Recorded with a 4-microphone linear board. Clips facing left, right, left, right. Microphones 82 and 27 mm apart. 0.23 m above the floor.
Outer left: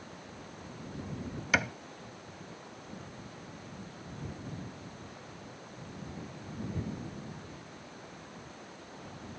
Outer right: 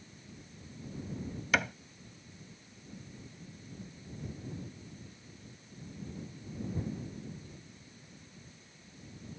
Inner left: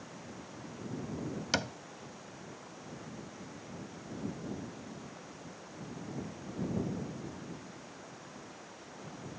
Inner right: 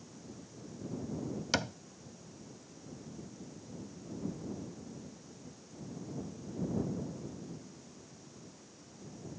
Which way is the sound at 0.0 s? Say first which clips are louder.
Outer left 7 dB, inner left 4 dB; 75° left (ahead or behind).